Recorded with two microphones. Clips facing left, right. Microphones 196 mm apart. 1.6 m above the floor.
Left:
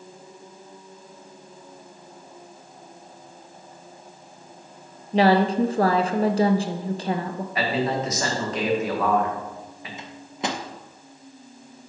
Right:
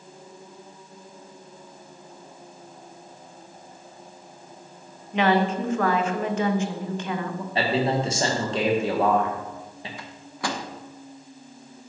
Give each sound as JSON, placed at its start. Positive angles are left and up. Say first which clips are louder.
{"t": 5.1, "sound": "a woman speaking", "louder": "left 3 dB", "side_deg": 35, "distance_m": 0.6}
{"t": 7.5, "sound": "a man speaking", "louder": "right 1 dB", "side_deg": -30, "distance_m": 1.7}
{"t": 10.0, "sound": "a microwave", "louder": "left 3 dB", "side_deg": 20, "distance_m": 0.7}